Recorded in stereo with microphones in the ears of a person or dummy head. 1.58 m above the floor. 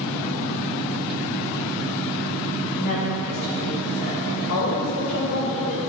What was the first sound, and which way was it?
A woman speaking, 45° left (ahead or behind).